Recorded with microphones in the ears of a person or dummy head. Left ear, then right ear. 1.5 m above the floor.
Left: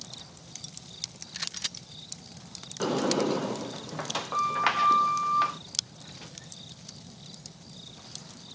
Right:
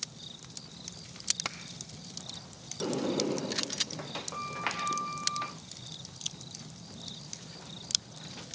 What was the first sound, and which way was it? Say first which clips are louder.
A sliding door: left 5 dB; 40° left (ahead or behind).